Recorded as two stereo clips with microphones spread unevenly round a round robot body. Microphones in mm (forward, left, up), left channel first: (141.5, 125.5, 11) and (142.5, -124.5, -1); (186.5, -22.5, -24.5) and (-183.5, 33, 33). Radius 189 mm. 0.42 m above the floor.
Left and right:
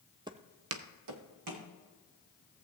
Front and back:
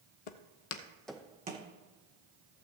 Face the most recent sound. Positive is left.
turn(degrees=-120)